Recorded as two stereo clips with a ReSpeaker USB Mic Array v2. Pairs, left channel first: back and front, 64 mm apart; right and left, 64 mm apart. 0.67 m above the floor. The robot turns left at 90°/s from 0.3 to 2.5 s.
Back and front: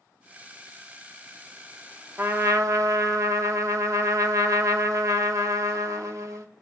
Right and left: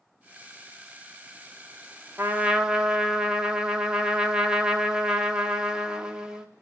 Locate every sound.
2.2 s a trumpet: 45° left, 1.0 m; by 6.5 s 15° left, 1.0 m